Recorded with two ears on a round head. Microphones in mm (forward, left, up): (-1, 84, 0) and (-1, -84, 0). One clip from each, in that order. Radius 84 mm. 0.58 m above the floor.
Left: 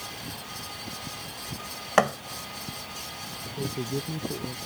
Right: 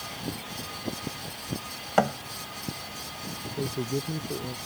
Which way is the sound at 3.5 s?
55° right (ahead or behind).